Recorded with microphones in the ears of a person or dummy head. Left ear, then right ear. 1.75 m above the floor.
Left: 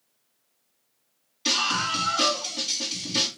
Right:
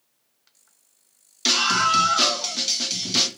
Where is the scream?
50° right (ahead or behind), 2 m.